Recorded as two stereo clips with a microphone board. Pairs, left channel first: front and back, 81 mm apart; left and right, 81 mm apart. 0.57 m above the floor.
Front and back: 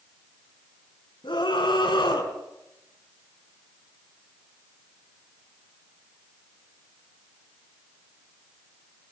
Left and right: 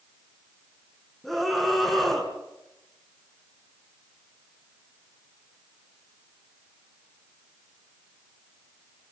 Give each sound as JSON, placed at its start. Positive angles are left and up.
{"t": 1.2, "sound": "a scream", "azimuth_deg": 0, "distance_m": 5.0}